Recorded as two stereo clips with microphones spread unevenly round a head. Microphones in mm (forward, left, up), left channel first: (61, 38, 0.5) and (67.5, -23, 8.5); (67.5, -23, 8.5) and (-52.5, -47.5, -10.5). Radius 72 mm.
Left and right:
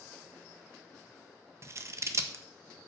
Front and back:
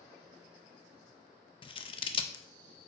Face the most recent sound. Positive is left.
turn(degrees=-40)